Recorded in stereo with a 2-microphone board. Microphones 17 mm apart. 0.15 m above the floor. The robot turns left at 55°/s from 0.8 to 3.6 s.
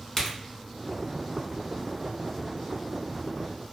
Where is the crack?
30° left (ahead or behind), 1.0 m.